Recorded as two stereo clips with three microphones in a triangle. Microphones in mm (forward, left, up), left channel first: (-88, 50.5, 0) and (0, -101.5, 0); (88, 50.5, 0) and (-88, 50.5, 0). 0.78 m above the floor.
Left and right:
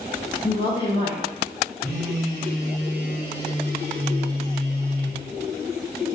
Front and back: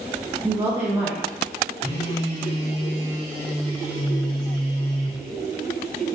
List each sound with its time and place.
0.4 s a woman speaking: 115° left, 0.7 m
1.8 s a phone buzzing: 140° left, 1.3 m